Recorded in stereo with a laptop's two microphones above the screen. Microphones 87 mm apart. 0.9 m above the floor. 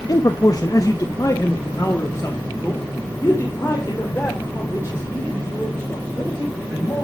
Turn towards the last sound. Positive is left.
turn(degrees=25)  # may be behind; listen again after turning